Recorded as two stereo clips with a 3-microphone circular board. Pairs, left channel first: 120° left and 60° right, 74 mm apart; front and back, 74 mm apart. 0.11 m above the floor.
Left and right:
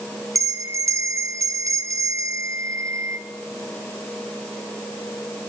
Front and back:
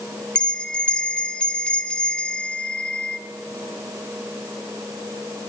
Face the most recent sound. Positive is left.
turn(degrees=-70)